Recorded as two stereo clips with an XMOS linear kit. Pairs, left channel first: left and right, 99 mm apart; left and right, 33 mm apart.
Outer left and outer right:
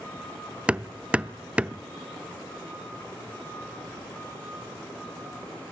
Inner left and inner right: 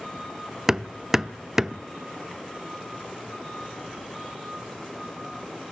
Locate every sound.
0.7 s hammering: 15° right (ahead or behind), 0.6 m